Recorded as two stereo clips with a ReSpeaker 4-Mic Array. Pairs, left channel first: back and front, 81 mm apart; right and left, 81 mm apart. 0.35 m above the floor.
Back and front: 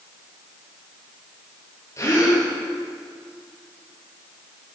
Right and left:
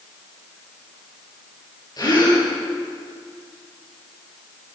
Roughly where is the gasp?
Behind right.